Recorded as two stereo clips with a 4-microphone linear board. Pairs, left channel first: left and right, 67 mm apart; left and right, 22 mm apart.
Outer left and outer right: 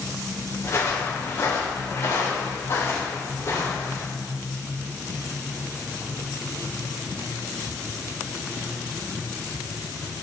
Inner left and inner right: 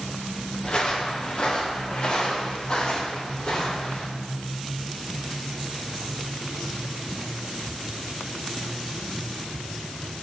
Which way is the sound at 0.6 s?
40° left (ahead or behind).